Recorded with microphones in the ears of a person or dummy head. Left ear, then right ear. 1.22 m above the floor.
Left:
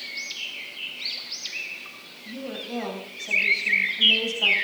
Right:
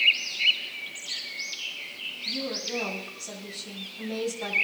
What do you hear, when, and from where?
2.2 s a woman speaking: 5° left (ahead or behind), 7 m